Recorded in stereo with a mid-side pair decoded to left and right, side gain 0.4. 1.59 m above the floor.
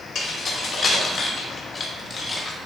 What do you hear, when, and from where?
0.1 s keys jangling: 65° left, 3 m; by 2.6 s 35° left, 2.0 m